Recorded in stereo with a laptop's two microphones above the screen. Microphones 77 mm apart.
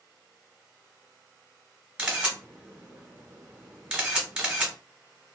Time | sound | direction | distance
2.0 | a camera shutter | 15° right (ahead or behind) | 1.5 m